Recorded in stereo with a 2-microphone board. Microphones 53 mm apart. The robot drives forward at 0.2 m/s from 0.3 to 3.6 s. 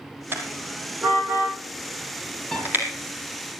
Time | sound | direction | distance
0.3 | a car horn | 40° right (ahead or behind) | 3.5 m
2.5 | a piano | 5° left (ahead or behind) | 4.5 m